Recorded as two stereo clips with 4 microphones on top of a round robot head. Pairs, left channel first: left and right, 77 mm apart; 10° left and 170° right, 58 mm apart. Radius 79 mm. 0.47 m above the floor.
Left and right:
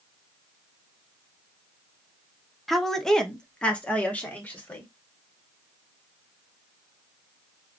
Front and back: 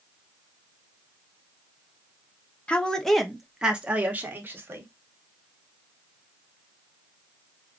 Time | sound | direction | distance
2.7 | a woman speaking | 5° left | 0.9 m